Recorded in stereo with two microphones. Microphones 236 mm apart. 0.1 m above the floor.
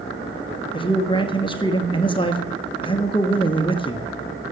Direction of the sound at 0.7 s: 20° left (ahead or behind).